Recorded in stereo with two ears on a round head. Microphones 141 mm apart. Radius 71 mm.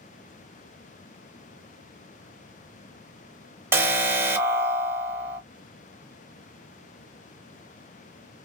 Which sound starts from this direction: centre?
An alarm, at 3.7 s.